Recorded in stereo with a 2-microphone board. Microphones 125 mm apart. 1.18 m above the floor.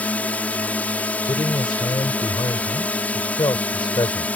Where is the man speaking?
35° left (ahead or behind).